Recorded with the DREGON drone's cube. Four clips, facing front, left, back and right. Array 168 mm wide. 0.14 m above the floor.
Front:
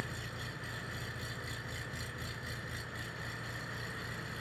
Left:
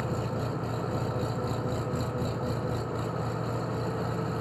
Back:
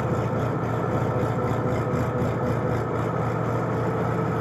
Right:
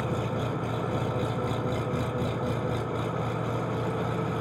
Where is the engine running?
175° right.